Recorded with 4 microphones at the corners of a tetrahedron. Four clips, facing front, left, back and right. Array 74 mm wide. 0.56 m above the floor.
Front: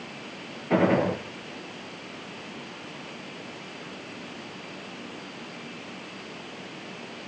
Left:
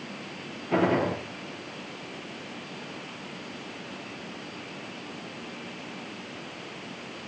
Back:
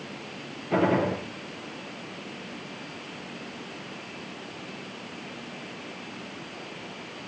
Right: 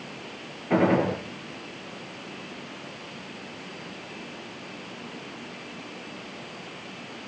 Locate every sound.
0.7 s a gunshot: 50° right, 9.5 m